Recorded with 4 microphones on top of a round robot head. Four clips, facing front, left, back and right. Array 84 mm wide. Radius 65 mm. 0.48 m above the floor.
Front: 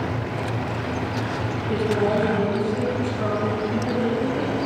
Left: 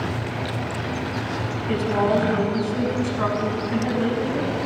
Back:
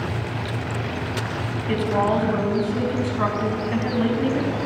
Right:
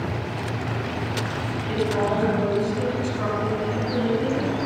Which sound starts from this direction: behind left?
A woman speaking, at 1.7 s.